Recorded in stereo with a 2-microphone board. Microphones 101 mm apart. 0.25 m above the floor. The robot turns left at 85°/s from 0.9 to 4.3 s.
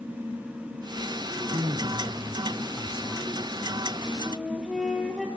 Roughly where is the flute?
Centre.